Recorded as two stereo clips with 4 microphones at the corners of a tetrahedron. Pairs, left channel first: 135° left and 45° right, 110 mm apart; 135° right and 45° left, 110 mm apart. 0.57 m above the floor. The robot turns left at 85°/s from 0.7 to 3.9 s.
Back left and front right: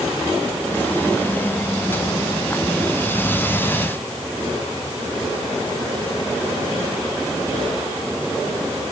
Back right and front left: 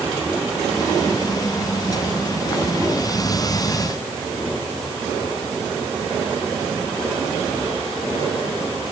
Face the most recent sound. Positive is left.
No sound to turn to.